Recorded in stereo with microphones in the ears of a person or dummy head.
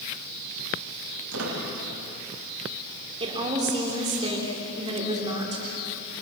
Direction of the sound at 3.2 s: 30° right (ahead or behind).